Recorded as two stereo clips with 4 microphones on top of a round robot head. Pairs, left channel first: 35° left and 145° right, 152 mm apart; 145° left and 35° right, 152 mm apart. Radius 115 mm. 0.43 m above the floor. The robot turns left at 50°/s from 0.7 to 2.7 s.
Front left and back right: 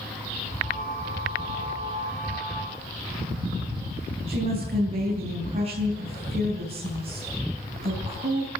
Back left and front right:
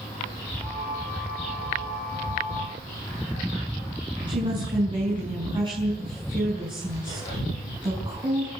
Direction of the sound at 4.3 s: 95° right.